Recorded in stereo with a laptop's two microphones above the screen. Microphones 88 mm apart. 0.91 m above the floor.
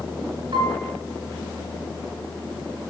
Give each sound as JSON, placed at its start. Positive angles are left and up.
{"t": 0.5, "sound": "a piano", "side_deg": -65, "distance_m": 3.0}